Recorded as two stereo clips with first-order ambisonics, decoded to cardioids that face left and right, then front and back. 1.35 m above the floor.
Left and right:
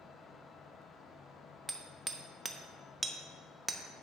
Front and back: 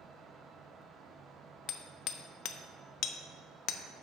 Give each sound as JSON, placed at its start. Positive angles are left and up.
{"t": 1.7, "sound": "hammering", "azimuth_deg": -15, "distance_m": 0.7}